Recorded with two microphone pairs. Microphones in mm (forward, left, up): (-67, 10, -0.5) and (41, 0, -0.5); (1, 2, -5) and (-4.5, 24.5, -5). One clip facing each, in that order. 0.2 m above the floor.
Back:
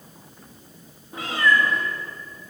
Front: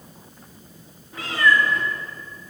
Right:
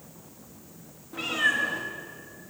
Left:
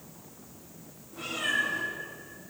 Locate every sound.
1.1 s a cat meowing: 120° right, 3 m